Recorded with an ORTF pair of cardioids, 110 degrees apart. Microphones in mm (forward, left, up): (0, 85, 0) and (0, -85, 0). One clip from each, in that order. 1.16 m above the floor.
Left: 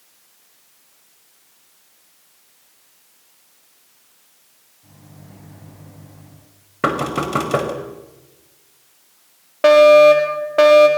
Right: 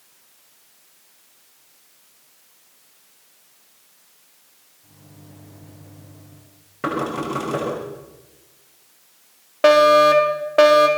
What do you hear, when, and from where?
4.8 s a microwave: 40° left, 6.5 m
6.8 s knocking: 50° left, 5.5 m
9.6 s a fire alarm: 5° right, 4.5 m